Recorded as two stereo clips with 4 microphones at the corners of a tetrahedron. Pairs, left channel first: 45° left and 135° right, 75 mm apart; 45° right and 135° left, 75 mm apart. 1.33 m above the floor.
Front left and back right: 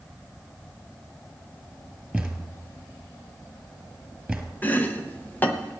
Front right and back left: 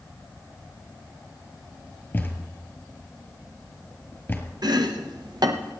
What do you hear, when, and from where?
2.1 s a thud: 70° right, 1.4 m
4.6 s chopping: 110° left, 0.9 m